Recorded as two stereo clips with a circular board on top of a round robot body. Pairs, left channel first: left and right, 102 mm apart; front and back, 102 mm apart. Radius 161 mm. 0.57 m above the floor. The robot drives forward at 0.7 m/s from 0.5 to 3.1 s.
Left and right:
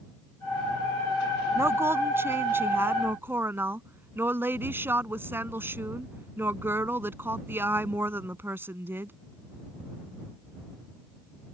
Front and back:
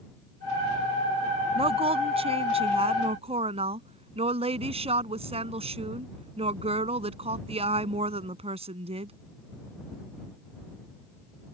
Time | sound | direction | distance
1.6 | a woman speaking | 155° right | ?